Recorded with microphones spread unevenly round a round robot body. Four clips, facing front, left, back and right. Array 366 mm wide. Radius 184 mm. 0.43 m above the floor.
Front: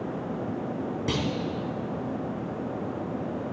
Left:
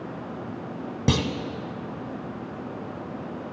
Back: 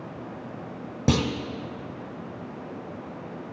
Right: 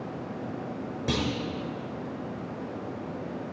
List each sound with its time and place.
1.1 s a clunk: 135° left, 0.7 m